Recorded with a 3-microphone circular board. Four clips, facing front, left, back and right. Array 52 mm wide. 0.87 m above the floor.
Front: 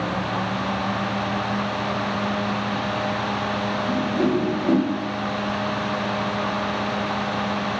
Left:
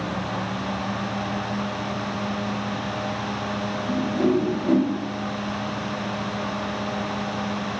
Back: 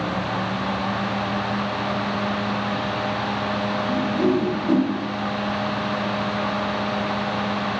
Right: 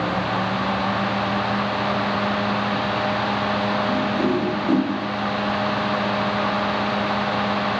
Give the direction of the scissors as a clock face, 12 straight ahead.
I don't hear scissors.